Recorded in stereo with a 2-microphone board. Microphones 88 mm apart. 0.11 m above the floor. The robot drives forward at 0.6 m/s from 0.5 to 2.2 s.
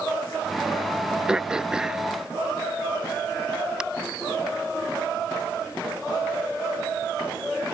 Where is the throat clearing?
10° right (ahead or behind).